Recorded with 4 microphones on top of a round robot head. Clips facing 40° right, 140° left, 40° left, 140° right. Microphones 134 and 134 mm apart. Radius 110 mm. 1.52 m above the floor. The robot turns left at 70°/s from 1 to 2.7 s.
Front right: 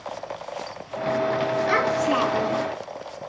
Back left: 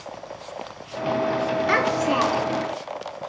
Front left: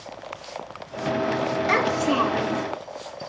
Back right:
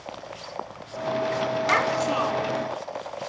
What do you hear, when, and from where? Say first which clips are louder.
1.7 s a child speaking: back left 1 dB, front left 3 dB; 105° left, 3 m; by 2.6 s 35° left, 3 m